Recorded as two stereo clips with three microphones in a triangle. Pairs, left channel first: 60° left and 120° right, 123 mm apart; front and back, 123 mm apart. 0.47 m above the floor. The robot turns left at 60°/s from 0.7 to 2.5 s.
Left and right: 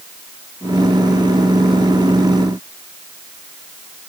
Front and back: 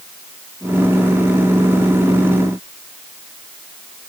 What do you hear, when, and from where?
Only background noise.